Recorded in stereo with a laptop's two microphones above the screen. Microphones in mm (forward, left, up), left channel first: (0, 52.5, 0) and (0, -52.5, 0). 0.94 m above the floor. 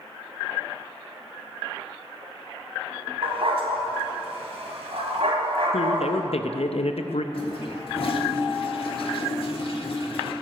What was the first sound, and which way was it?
A dog barking, 65° right (ahead or behind).